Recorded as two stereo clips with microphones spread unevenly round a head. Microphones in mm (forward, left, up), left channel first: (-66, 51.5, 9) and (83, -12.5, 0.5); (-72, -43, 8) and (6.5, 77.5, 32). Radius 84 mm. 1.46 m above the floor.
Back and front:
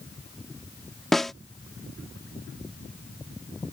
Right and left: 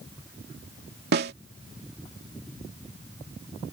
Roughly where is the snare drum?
Left.